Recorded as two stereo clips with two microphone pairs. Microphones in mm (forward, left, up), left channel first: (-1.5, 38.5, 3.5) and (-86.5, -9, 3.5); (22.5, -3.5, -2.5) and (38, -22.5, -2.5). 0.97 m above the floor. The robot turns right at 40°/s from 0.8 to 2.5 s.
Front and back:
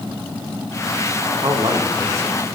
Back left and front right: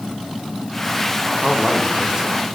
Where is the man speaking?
130° right, 1.2 m; by 2.4 s 90° right, 1.2 m.